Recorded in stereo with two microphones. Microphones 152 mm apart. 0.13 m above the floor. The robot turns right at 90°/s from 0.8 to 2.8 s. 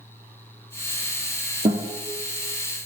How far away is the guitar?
About 1.2 m.